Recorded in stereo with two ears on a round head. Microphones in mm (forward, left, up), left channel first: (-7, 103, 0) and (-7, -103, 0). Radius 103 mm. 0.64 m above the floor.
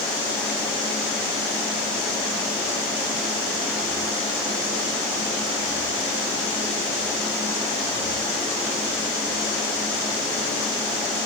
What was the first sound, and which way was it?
Only background noise.